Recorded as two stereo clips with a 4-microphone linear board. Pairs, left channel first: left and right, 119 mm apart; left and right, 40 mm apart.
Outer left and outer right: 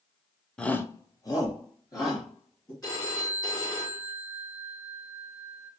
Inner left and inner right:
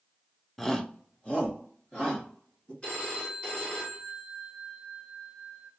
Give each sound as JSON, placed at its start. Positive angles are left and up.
{"t": 0.6, "sound": "a shout", "side_deg": 5, "distance_m": 0.6}
{"t": 2.8, "sound": "a phone ringing", "side_deg": 30, "distance_m": 2.0}